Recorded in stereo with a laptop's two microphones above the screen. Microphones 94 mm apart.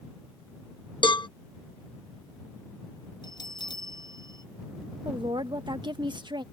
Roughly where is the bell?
Left.